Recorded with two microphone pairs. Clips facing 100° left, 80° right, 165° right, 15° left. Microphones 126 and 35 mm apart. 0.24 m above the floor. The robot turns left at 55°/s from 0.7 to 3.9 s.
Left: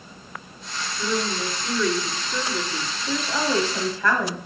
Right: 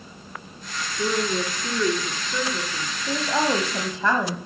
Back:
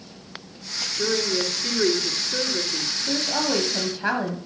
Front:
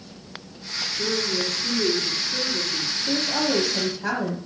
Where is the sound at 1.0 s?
100° right, 2 m; by 3.0 s 150° left, 2 m.